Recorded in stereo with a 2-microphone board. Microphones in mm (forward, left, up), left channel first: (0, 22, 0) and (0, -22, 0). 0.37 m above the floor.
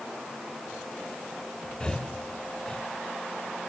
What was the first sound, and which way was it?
Breathing, 20° left (ahead or behind).